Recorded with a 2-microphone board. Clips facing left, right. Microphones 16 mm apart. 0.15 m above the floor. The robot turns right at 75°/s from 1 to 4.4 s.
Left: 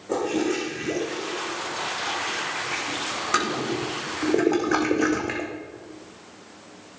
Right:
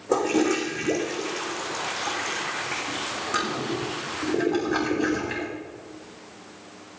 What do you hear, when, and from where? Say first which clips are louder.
0.1 s a toilet flushing: right 2 dB; 35° right (ahead or behind), 3 m; by 5.5 s 70° left (ahead or behind), 3 m